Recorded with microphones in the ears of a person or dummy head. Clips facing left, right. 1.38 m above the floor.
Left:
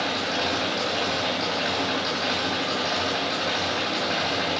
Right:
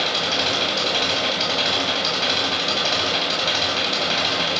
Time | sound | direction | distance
0.0 | an engine running | 45° right (ahead or behind) | 9.5 m